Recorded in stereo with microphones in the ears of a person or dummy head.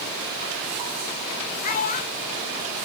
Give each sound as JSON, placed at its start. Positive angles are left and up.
{"t": 1.6, "sound": "a child speaking", "side_deg": 45, "distance_m": 3.0}